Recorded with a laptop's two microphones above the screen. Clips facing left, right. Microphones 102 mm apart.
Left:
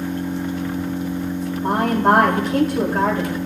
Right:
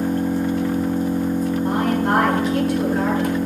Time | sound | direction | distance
0.0 | an engine running | 40° right (ahead or behind) | 0.8 m
1.6 | a woman speaking | 60° left (ahead or behind) | 2 m